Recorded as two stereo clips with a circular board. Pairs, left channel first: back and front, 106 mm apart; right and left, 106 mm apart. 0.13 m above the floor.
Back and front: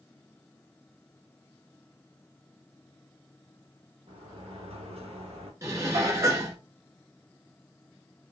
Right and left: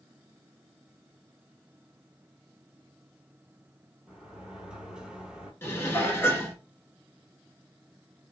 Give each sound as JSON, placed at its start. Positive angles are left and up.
{"t": 4.1, "sound": "a sliding door", "azimuth_deg": 5, "distance_m": 0.8}
{"t": 5.6, "sound": "dishes clattering", "azimuth_deg": -40, "distance_m": 0.9}